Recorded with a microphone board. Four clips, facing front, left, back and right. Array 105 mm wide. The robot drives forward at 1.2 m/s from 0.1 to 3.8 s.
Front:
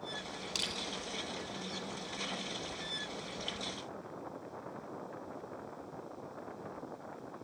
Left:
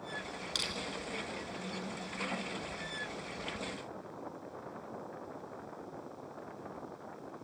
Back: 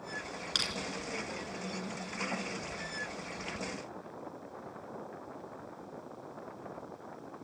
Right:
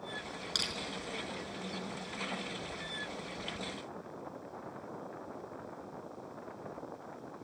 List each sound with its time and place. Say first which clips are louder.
0.6 s crushing: right 1 dB, back 4 dB; 165° right, 3 m